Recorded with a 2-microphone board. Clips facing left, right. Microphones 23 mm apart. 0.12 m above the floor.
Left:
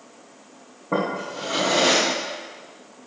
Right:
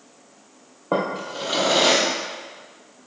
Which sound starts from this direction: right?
A drawer, at 0.9 s.